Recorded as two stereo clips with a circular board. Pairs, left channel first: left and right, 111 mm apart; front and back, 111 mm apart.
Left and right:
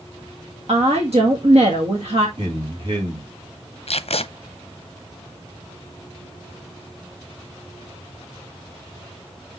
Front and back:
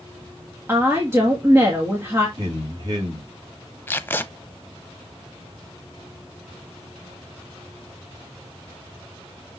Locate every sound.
0.7 s a woman speaking: 115° right, 1.6 m
2.4 s a man speaking: 135° right, 3.5 m
3.9 s tape being pulled: 70° left, 0.5 m